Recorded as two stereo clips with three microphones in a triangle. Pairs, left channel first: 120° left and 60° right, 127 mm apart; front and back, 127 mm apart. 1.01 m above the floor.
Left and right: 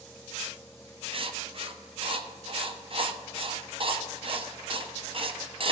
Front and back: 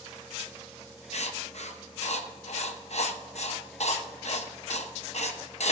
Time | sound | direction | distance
1.1 | writing | 20° right | 0.6 m